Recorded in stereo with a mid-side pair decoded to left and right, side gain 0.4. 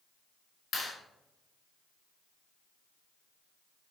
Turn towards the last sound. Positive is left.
turn(degrees=55)